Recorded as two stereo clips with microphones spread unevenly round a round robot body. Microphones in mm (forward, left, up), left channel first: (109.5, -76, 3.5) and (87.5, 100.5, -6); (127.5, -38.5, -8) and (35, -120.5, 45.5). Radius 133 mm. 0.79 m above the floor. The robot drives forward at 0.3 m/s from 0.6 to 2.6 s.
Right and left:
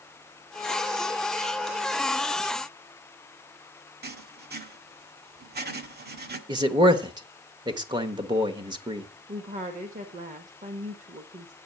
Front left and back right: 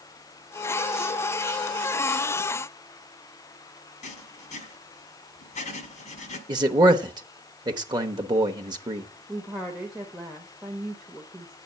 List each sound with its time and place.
4.0 s writing: 70° left, 1.5 m
6.5 s a man speaking: 145° left, 0.8 m
9.3 s a woman speaking: 110° left, 1.0 m